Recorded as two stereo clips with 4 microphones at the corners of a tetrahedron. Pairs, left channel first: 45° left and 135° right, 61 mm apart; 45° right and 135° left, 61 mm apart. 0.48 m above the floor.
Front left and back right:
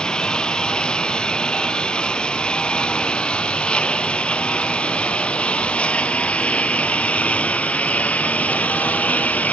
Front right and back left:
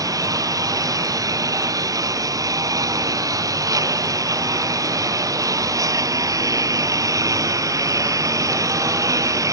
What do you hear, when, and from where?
0.0 s a lawn mower: 120° left; by 9.5 s 110° left